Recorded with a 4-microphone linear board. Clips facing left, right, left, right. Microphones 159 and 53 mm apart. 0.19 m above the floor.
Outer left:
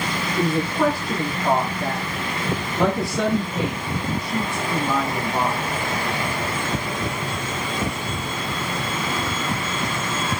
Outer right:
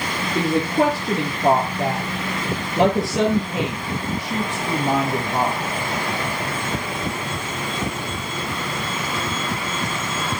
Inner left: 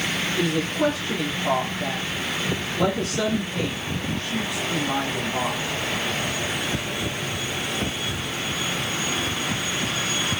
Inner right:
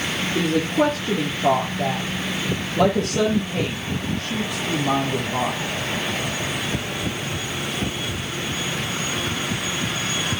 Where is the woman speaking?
75° right (ahead or behind), 4.5 m.